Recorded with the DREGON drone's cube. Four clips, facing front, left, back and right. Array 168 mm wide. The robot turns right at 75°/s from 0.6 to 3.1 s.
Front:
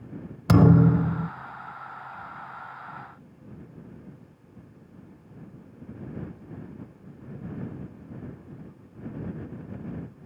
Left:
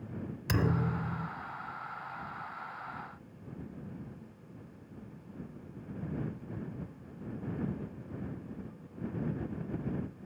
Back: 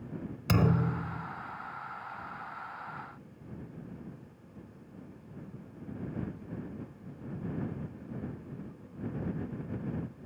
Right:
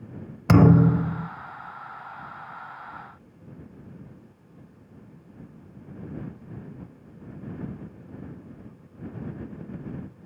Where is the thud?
65° right; by 1.3 s 10° right.